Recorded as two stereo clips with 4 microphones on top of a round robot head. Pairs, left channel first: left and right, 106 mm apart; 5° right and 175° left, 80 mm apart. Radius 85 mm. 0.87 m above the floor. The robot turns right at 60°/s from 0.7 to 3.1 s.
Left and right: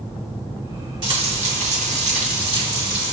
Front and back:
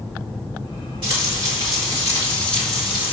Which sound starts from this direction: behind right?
Frying, at 1.0 s.